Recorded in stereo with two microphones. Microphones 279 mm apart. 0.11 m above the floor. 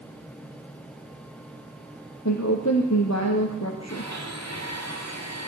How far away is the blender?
About 9 m.